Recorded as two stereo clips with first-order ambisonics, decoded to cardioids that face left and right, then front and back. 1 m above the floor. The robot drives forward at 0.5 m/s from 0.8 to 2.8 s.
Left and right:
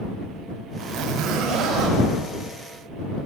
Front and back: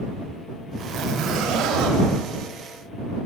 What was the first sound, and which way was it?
A zipper, 120° right.